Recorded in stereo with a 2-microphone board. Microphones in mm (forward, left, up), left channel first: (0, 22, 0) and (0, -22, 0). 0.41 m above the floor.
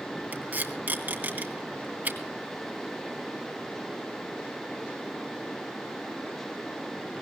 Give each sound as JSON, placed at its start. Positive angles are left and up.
{"t": 0.3, "sound": "tape being pulled", "side_deg": -40, "distance_m": 3.0}